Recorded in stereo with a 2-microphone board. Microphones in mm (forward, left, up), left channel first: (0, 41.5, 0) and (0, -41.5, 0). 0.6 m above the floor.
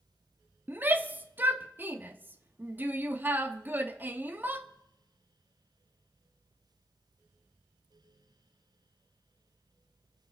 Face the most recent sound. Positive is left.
turn(degrees=-20)  # may be behind; listen again after turning